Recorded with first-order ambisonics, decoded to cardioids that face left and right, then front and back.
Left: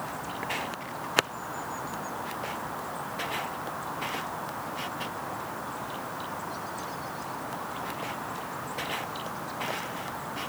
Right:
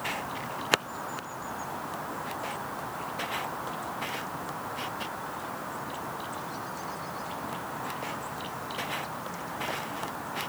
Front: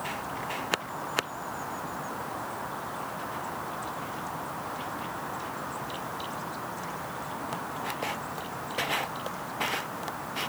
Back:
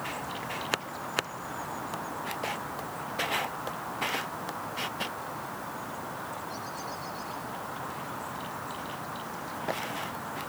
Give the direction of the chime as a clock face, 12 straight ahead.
I don't hear a chime.